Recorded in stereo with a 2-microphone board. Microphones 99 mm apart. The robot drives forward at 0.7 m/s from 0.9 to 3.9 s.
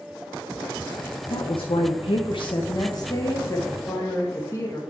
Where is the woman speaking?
60° left (ahead or behind), 0.8 m; by 4.8 s 25° left (ahead or behind), 1.6 m.